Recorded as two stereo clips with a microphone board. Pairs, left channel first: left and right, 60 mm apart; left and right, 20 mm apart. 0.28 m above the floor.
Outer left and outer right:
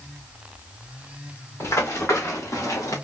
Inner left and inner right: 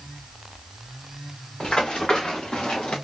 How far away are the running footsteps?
About 3 m.